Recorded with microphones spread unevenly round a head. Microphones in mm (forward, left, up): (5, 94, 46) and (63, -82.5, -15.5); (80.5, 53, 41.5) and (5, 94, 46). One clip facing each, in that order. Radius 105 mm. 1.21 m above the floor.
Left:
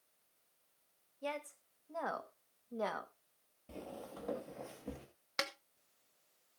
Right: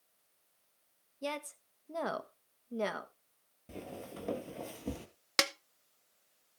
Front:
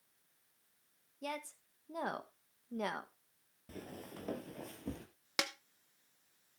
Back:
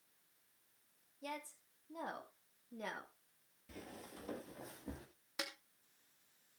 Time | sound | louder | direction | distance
1.2 | a woman speaking | right 3 dB, front 4 dB | 55° right | 1.8 m
3.7 | footsteps | right 3 dB, front 4 dB | 10° left | 1.8 m
5.4 | a snare drum | right 7 dB, front 7 dB | 60° right | 0.9 m